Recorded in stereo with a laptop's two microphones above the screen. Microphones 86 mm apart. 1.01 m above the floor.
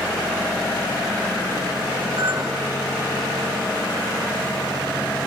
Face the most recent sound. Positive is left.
turn(degrees=-70)  # may be behind; listen again after turning